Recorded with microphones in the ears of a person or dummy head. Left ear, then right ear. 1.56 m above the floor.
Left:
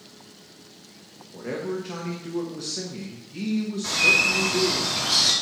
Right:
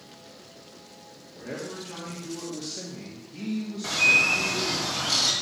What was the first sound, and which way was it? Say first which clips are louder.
A man speaking: left 6 dB; 35° left (ahead or behind).